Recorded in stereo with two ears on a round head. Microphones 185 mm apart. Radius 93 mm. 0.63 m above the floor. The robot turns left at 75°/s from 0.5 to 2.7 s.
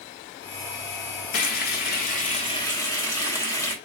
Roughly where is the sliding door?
No sliding door in this recording.